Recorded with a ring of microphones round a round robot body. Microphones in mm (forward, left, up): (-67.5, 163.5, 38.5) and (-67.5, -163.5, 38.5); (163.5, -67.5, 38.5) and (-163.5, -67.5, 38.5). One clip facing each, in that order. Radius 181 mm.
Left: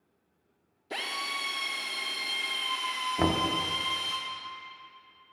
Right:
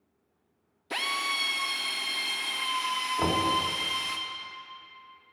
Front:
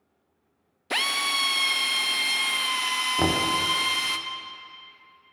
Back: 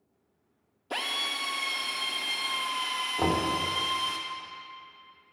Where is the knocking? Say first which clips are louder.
Left 1 dB, front 2 dB; 50° left, 0.7 m.